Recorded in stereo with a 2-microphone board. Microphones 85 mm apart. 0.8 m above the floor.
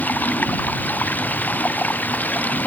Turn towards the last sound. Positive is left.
turn(degrees=20)  # may be behind; listen again after turning